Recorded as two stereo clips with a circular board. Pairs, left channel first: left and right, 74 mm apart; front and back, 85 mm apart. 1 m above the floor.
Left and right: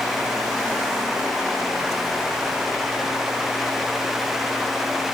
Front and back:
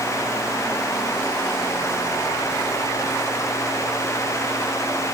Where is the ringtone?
No ringtone in this recording.